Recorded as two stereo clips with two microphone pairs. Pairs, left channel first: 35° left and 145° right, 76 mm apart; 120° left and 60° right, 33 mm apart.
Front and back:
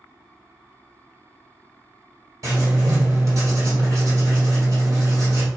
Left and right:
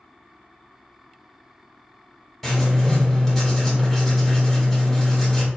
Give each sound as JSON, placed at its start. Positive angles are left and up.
{"t": 2.4, "sound": "writing", "azimuth_deg": -150, "distance_m": 1.5}